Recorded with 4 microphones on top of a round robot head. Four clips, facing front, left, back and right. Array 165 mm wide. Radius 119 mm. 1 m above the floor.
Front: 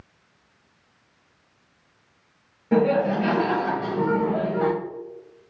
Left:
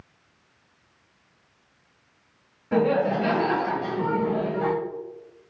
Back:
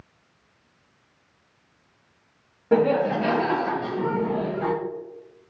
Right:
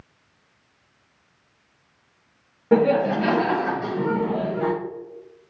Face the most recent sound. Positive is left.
turn(degrees=0)